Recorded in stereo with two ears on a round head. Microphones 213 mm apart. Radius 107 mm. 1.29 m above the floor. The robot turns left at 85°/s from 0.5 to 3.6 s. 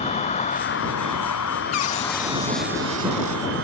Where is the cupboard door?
75° left; by 3.4 s 70° right.